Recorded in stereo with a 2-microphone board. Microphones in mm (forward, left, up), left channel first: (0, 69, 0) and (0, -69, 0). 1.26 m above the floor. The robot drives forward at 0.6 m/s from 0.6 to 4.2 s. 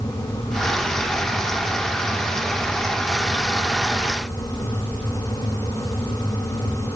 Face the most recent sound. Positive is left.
No sound to turn to.